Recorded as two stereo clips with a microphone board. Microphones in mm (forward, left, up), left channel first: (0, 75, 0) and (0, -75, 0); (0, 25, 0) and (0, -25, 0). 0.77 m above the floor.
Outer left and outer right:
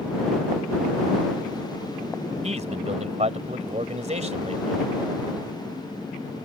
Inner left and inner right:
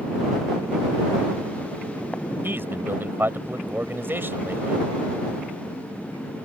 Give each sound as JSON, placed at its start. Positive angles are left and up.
{"t": 2.4, "sound": "a man speaking", "side_deg": -45}